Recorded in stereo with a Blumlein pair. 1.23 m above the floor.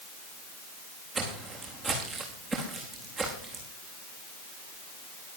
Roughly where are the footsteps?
Ahead.